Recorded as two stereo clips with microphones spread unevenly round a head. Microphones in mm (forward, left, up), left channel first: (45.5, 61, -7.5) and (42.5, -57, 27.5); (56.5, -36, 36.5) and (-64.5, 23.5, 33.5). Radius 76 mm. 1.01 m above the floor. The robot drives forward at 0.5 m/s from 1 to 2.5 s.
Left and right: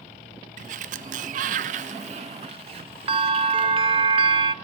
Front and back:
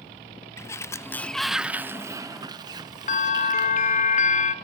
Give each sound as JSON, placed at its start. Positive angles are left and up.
{"t": 0.6, "sound": "a sliding door", "azimuth_deg": -90, "distance_m": 0.6}
{"t": 3.1, "sound": "a bell", "azimuth_deg": -40, "distance_m": 1.5}